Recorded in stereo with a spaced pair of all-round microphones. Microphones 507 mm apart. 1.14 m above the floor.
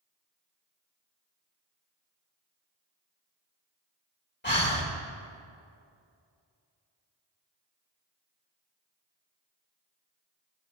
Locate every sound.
4.4 s breathing: 20° left (ahead or behind), 1.6 m